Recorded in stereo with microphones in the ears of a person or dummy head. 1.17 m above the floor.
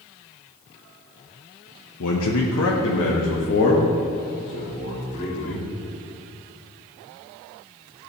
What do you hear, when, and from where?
2.0 s a man speaking: 80° left, 1.0 m; by 5.7 s 35° left (ahead or behind), 3 m